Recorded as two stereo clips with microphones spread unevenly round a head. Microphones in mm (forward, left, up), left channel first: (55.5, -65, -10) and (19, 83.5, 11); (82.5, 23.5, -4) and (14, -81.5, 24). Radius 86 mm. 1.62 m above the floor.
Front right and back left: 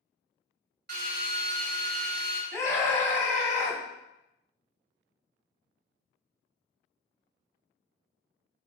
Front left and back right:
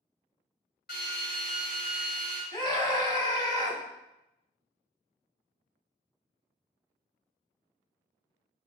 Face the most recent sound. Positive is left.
turn(degrees=-5)